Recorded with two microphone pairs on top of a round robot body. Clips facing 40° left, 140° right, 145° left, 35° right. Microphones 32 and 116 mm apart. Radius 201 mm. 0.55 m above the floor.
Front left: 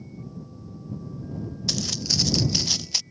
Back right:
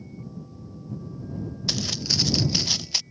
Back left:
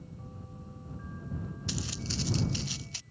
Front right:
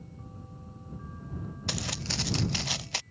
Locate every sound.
1.7 s footsteps: 65° right; by 3.0 s 60° right